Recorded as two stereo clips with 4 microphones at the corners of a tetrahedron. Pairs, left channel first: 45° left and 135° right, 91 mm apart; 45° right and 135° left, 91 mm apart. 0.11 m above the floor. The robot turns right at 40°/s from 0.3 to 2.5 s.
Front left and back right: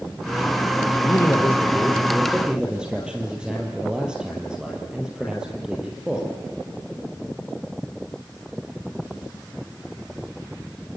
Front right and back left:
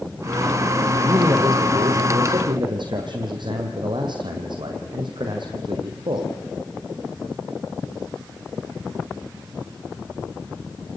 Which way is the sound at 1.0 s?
85° left.